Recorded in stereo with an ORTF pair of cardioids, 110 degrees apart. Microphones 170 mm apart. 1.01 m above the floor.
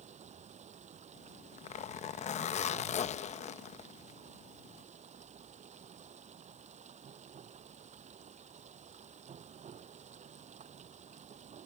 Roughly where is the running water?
Ahead right.